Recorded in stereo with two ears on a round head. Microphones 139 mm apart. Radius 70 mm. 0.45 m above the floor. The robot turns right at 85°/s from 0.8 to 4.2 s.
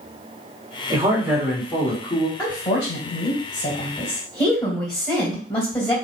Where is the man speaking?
50° right, 1.5 m; by 2.3 s 70° left, 1.5 m.